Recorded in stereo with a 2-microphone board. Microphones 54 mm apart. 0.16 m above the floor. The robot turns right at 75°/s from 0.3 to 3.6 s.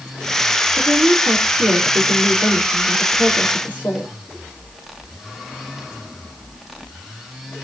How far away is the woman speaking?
About 4.5 m.